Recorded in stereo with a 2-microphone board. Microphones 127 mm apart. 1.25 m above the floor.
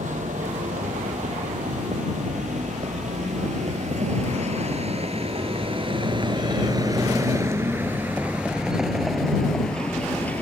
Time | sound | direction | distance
0.0 | a vehicle | 90° right | ?